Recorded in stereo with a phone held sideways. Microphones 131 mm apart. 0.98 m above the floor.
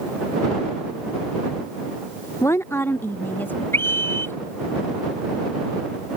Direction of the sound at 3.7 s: 15° left (ahead or behind).